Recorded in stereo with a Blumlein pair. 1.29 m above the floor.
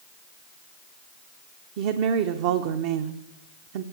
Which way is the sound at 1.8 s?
50° right.